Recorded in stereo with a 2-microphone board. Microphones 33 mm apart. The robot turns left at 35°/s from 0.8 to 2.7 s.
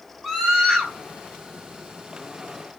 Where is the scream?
15° right (ahead or behind), 7 m; by 0.9 s 10° right (ahead or behind), 7 m.